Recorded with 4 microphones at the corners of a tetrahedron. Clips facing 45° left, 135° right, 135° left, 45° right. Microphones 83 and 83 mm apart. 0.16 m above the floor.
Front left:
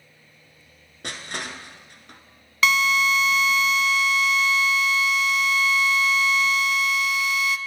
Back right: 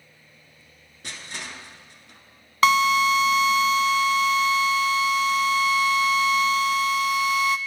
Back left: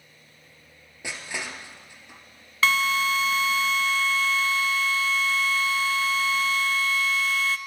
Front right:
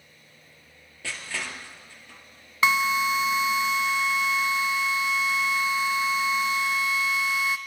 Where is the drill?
110° right, 0.6 m.